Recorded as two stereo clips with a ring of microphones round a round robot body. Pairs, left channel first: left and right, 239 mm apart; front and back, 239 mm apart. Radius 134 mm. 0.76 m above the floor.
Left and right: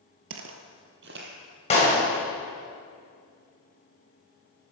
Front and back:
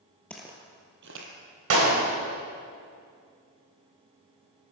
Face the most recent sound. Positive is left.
turn(degrees=155)